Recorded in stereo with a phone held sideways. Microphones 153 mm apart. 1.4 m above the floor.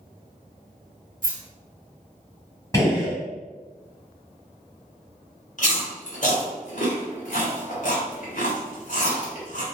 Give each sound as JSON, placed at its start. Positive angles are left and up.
{"t": 1.2, "sound": "keys jangling", "side_deg": -70, "distance_m": 1.0}
{"t": 2.7, "sound": "a gunshot", "side_deg": 20, "distance_m": 1.3}
{"t": 5.6, "sound": "chewing", "side_deg": 60, "distance_m": 1.0}